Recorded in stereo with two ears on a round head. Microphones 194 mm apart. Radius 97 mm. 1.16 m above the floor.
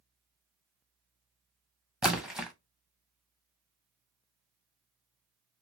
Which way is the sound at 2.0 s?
Centre (ahead or behind).